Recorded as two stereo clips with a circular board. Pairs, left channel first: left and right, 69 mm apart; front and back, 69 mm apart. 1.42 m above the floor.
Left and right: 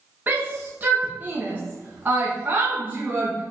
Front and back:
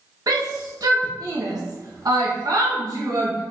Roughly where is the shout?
Behind right.